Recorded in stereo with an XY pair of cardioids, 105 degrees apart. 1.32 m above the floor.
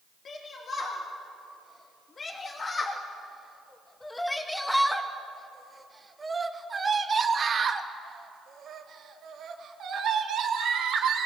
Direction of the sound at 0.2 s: 50° left.